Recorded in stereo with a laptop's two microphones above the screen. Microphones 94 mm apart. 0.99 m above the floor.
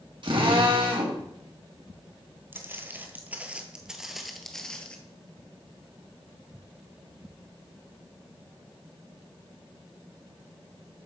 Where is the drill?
55° right (ahead or behind), 1.7 m.